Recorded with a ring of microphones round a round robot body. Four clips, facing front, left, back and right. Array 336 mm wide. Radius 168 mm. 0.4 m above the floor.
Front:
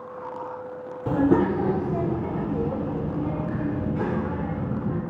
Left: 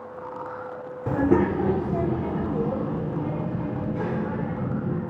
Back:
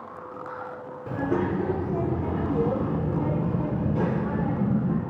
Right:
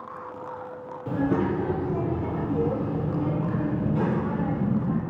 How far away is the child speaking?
About 0.8 m.